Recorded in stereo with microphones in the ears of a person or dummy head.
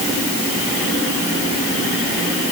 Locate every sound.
Only background noise.